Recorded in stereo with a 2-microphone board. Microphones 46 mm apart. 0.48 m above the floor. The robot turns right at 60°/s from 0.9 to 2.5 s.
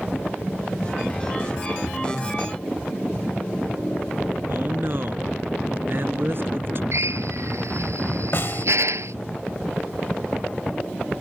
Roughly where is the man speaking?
Right.